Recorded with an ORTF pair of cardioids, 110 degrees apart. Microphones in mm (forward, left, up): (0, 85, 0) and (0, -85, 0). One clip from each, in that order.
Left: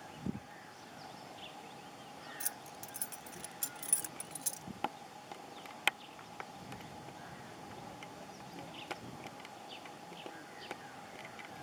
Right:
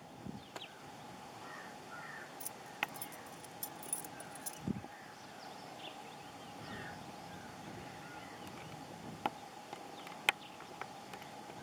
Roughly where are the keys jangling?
Ahead left.